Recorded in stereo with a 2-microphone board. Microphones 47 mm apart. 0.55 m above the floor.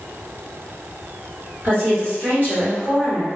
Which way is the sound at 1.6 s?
45° right (ahead or behind).